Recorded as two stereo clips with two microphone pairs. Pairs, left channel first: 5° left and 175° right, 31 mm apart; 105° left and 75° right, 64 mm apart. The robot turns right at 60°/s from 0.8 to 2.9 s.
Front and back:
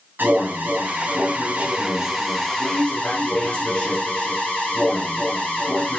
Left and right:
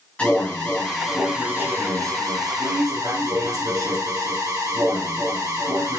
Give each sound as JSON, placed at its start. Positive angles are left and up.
{"t": 0.2, "sound": "an alarm", "azimuth_deg": 175, "distance_m": 5.5}